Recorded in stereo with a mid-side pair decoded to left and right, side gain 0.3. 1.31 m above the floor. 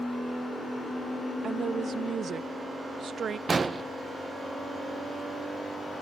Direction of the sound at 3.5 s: 50° right.